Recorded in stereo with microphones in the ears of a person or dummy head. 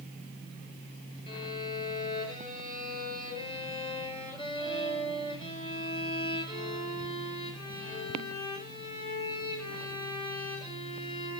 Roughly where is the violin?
Left.